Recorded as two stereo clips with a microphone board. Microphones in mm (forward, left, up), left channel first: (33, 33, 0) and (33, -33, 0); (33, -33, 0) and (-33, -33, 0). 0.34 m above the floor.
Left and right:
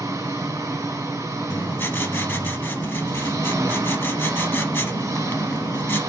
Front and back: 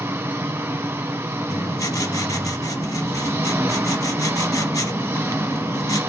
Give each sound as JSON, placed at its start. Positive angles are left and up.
{"t": 0.0, "sound": "an engine running", "azimuth_deg": -135, "distance_m": 1.6}
{"t": 1.5, "sound": "writing", "azimuth_deg": 30, "distance_m": 0.6}